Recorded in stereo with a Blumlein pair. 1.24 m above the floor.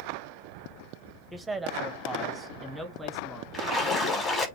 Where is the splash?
15° left, 5.5 m.